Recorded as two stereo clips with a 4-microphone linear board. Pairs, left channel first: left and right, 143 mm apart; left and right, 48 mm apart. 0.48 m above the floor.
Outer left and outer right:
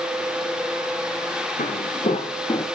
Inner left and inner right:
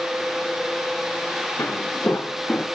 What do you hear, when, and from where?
1.6 s footsteps: 70° left (ahead or behind), 2 m; by 2.7 s 30° left (ahead or behind), 1.9 m